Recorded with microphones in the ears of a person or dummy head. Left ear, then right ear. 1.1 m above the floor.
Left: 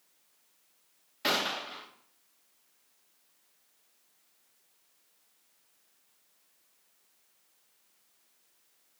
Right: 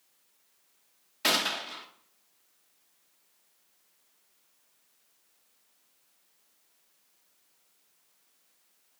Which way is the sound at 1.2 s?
15° right (ahead or behind).